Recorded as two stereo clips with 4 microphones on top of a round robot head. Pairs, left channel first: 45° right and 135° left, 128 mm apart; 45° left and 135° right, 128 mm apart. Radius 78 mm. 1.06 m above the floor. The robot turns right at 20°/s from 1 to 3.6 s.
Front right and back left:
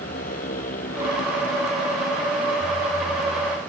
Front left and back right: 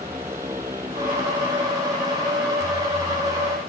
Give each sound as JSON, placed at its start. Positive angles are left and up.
{"t": 0.0, "sound": "a motorcycle", "azimuth_deg": -60}